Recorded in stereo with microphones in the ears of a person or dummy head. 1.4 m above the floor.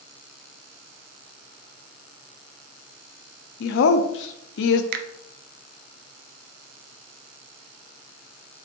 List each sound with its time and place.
3.6 s a woman speaking: 80° left, 0.6 m
4.9 s a finger snap: 55° right (ahead or behind), 0.6 m